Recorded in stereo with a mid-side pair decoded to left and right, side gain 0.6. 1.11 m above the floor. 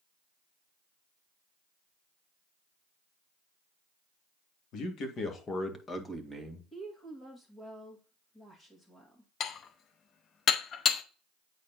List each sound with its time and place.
4.7 s a man speaking: 60° left, 1.9 m; by 6.6 s 5° right, 2.0 m
6.7 s a woman speaking: 25° left, 2 m
9.4 s dishes clattering: 45° left, 0.7 m